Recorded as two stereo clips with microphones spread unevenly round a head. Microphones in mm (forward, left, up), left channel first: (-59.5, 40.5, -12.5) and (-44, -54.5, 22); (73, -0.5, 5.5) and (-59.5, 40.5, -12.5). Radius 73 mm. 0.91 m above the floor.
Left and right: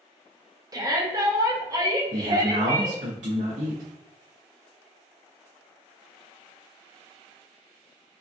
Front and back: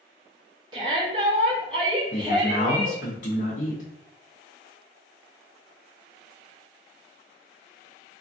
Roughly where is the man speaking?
Ahead right.